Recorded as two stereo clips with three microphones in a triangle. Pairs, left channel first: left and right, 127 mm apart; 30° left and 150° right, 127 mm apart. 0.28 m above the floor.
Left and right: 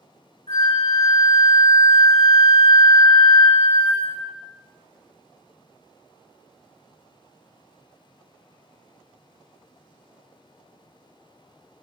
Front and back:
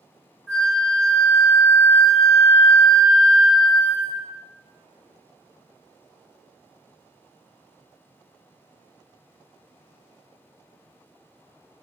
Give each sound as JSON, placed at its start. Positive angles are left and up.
{"t": 0.5, "sound": "a flute", "azimuth_deg": 115, "distance_m": 1.3}